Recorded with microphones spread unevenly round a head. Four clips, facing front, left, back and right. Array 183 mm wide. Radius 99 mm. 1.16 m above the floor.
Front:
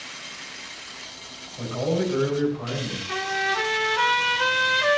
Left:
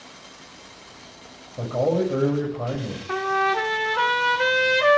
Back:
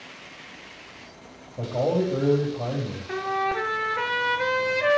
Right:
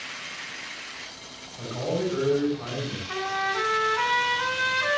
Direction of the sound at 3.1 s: 120° left.